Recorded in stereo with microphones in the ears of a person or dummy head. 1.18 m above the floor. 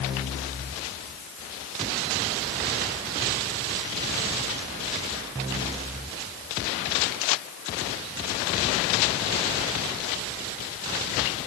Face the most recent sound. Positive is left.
No sound to turn to.